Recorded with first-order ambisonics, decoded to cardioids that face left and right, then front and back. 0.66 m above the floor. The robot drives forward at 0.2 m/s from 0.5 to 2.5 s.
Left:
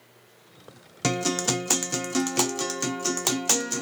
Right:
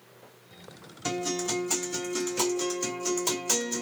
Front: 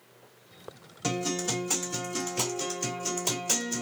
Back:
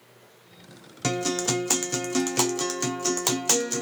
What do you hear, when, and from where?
1.0 s a guitar: 115° left, 0.6 m; by 3.8 s 135° left, 0.7 m